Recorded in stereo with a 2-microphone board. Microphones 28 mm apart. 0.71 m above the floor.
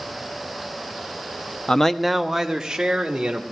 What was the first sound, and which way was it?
A man speaking, 30° left (ahead or behind).